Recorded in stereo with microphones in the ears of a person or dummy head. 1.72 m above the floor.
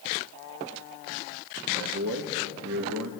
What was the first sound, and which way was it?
A man speaking, 80° right.